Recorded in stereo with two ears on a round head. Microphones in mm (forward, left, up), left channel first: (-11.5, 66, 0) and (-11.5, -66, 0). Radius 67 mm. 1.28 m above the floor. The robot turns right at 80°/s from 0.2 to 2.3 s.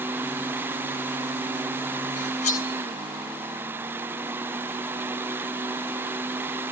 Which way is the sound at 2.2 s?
65° left (ahead or behind).